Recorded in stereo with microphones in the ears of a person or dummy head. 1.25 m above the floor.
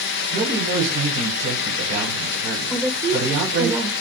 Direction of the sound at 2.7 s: 15° right (ahead or behind).